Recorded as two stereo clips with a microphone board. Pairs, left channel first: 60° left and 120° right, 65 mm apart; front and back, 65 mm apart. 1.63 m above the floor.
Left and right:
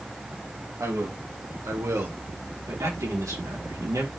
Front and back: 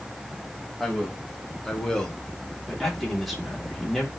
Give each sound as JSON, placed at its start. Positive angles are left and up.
{"t": 0.8, "sound": "a man speaking", "azimuth_deg": -85, "distance_m": 2.5}
{"t": 2.7, "sound": "a man speaking", "azimuth_deg": -90, "distance_m": 4.0}